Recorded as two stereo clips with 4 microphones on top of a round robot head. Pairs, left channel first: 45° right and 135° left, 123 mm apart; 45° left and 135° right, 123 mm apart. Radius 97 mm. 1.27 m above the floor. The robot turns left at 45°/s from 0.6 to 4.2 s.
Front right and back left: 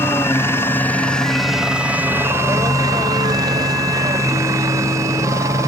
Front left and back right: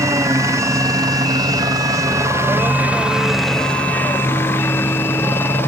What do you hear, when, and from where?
0.0 s a helicopter: 100° right; by 5.7 s 100° left